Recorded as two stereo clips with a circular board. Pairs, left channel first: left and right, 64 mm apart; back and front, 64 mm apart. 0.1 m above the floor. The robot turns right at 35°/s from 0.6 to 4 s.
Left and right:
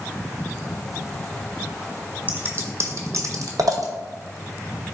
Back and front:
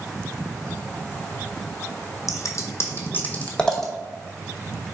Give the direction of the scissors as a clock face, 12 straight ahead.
5 o'clock.